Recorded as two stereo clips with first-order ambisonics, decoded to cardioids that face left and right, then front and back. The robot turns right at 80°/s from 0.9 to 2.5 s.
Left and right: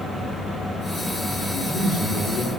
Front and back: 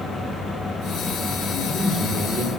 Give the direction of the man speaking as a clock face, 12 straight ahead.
11 o'clock.